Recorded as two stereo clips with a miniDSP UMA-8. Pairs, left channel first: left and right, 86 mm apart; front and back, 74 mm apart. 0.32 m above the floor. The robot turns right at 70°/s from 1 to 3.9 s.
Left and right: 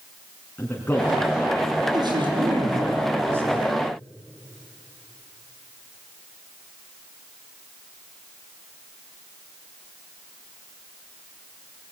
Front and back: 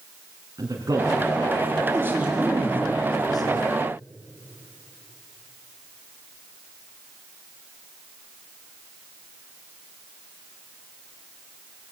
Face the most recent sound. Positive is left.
turn(degrees=15)